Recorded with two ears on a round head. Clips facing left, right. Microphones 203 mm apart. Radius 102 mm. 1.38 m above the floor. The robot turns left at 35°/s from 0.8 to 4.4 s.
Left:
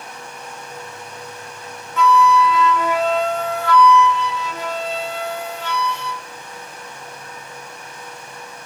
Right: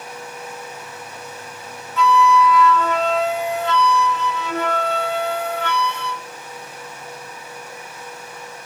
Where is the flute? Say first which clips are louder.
Left 1 dB; 40° left, 0.5 m; by 6.2 s 45° right, 0.5 m.